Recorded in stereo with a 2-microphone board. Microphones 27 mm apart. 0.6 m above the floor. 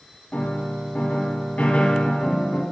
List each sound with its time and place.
0.3 s a piano: 80° left, 1.7 m